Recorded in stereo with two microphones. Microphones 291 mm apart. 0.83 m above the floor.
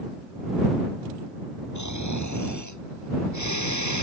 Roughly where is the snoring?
Left.